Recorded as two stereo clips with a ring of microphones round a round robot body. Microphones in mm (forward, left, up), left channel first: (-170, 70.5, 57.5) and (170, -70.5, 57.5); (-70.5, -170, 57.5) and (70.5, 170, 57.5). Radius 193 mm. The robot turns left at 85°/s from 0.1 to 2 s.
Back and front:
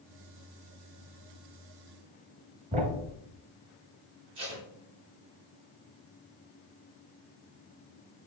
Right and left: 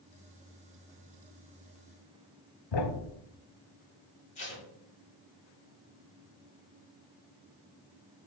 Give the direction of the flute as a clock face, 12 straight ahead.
I don't hear a flute.